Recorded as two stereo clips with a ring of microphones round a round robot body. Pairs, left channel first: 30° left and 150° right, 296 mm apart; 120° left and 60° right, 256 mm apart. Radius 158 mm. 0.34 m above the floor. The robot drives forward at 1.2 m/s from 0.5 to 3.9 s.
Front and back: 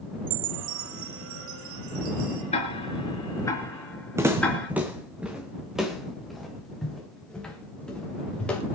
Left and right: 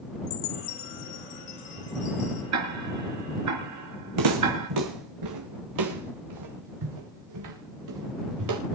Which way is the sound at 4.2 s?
70° right.